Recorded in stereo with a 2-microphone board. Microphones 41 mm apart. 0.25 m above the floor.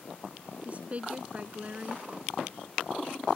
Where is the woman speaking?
35° right (ahead or behind).